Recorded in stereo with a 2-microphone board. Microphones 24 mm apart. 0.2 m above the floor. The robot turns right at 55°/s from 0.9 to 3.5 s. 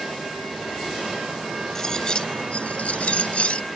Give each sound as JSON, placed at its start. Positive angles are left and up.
{"t": 1.8, "sound": "cutlery clinking", "azimuth_deg": 20}